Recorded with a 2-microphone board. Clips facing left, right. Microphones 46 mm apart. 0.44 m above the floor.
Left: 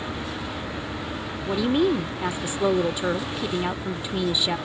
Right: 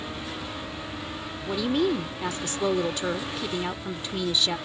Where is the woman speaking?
15° left (ahead or behind).